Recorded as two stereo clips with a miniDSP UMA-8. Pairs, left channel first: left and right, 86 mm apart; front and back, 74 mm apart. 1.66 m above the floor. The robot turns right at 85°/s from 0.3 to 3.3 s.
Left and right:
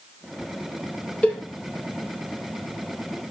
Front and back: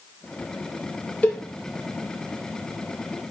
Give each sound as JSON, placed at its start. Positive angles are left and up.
{"t": 1.2, "sound": "a cowbell", "azimuth_deg": 35, "distance_m": 0.5}